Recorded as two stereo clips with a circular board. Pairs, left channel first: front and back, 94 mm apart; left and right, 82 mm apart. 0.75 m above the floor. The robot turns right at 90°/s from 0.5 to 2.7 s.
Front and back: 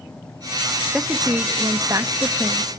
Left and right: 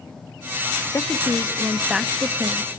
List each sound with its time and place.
0.9 s a woman speaking: 100° left, 0.9 m; by 2.7 s 100° right, 0.9 m